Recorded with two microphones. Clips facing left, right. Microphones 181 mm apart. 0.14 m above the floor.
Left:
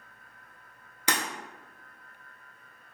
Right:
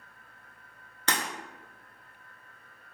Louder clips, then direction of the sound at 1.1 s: Left 1 dB; 15° left (ahead or behind).